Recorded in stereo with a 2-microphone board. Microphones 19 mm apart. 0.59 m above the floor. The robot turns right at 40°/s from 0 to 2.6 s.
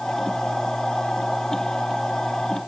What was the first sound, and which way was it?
Only background noise.